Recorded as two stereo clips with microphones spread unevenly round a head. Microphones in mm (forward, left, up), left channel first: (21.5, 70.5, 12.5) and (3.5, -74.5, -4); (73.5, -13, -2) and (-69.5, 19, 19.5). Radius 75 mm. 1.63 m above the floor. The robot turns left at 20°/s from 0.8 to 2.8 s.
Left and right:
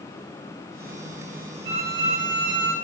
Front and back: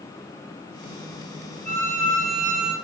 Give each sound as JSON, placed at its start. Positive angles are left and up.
{"t": 1.6, "sound": "a violin", "azimuth_deg": -95, "distance_m": 1.9}